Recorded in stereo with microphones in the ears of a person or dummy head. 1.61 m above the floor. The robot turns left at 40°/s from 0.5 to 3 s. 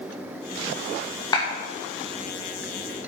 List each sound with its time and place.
1.3 s a clap: 25° left (ahead or behind), 2 m; by 1.4 s 30° left (ahead or behind), 2 m